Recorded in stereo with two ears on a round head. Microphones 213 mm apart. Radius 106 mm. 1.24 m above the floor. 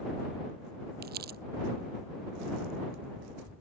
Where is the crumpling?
40° right (ahead or behind).